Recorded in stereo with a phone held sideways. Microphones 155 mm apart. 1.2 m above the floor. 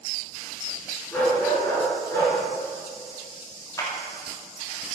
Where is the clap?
20° left (ahead or behind), 2.5 m.